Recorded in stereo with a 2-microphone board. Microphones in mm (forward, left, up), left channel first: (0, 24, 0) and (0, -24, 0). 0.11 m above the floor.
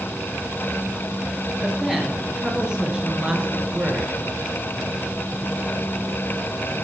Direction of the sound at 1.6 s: 5° right (ahead or behind).